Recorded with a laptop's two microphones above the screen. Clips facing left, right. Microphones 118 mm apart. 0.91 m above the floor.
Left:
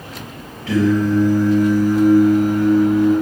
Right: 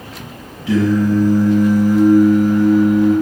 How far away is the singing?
About 1.2 m.